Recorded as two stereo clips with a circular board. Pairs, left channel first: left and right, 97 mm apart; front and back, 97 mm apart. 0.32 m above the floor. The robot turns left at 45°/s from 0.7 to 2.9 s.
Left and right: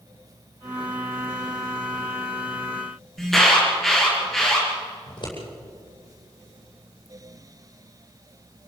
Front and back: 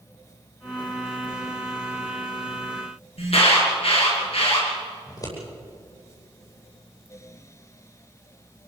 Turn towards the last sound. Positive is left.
turn(degrees=55)